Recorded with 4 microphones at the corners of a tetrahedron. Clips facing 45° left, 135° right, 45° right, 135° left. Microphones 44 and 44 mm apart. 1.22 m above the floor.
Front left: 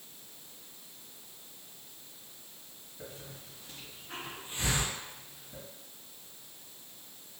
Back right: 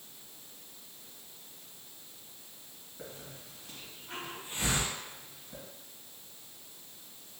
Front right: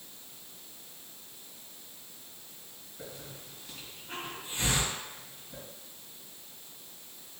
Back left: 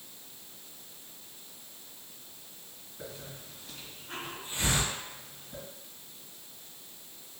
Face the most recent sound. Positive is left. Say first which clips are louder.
# even, back left 1 dB
turn(degrees=-135)